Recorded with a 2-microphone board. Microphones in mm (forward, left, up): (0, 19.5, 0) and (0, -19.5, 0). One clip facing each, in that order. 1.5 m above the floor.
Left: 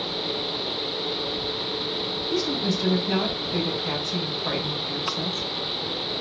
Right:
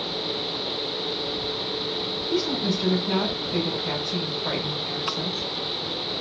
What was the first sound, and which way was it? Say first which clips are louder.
A woman speaking: right 1 dB; 15° right (ahead or behind).